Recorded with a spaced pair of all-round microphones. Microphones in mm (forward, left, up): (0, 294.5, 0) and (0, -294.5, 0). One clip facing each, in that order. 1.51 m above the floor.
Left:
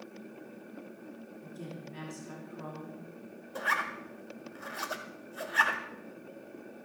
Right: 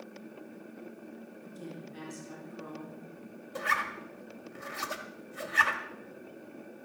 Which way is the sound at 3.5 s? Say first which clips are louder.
Even; 45° right (ahead or behind).